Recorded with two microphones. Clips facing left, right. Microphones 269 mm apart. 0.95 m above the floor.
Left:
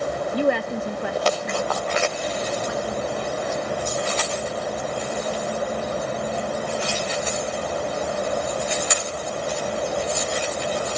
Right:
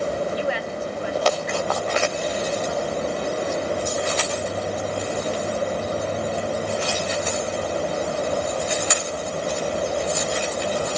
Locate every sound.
0.3 s a woman speaking: 50° left (ahead or behind), 0.6 m; by 3.6 s 70° left (ahead or behind), 2 m